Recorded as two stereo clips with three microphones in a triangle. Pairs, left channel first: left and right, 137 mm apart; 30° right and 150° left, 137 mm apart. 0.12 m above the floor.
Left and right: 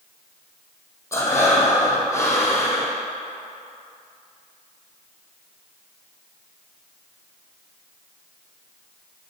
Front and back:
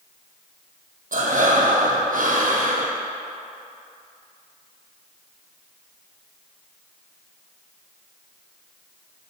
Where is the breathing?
160° left, 0.9 m.